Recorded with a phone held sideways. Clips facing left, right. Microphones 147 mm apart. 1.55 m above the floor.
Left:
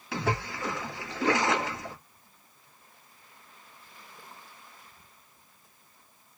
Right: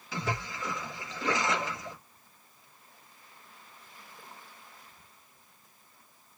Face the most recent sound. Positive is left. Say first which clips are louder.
# left 4 dB
turn(degrees=70)  # may be behind; listen again after turning